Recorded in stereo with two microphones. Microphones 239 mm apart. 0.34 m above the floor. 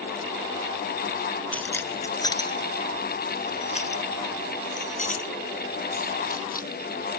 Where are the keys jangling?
5° left (ahead or behind); by 7.2 s 40° left (ahead or behind).